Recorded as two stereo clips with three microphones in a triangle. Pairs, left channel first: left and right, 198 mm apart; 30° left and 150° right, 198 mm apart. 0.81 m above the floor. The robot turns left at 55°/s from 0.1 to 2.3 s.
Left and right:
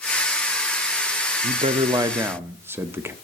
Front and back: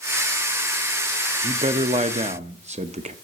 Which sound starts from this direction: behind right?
A man speaking, at 1.4 s.